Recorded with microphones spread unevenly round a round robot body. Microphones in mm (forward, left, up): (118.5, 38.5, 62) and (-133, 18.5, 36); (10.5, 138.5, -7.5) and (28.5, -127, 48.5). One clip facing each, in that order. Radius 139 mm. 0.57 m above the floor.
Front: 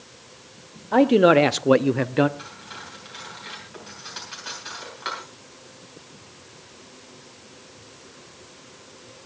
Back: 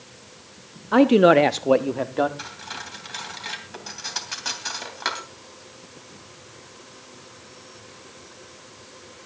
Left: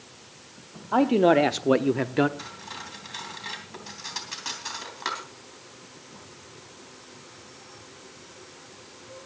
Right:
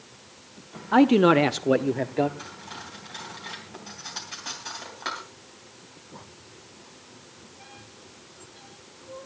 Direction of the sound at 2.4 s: 165° left.